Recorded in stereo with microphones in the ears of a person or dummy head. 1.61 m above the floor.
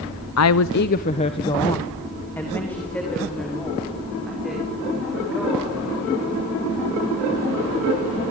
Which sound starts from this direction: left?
A woman speaking, at 0.4 s.